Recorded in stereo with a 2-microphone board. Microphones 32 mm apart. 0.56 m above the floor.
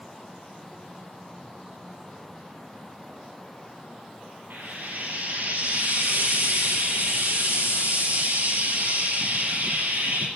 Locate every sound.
4.5 s frying: 70° right (ahead or behind), 5 m